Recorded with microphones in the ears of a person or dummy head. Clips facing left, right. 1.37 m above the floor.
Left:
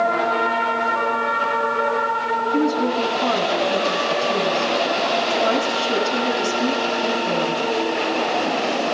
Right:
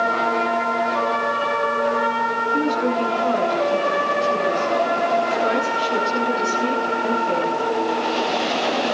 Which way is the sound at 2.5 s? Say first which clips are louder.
Left 1 dB; 85° left.